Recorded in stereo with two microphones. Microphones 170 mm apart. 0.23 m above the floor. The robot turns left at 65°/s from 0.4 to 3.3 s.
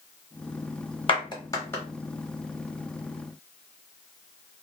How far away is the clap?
About 0.9 m.